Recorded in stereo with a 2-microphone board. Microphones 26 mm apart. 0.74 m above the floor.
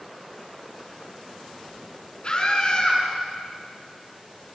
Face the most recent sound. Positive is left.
turn(degrees=35)  # may be behind; listen again after turning